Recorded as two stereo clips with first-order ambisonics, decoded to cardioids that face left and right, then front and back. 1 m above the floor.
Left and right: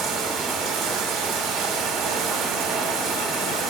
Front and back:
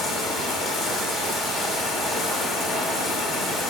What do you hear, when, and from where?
0.0 s running water: 50° right, 1.5 m